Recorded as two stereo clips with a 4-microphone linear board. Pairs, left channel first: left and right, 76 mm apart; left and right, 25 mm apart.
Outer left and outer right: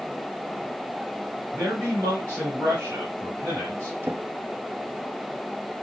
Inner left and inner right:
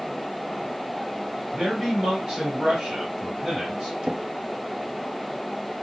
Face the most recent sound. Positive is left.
turn(degrees=-30)  # may be behind; listen again after turning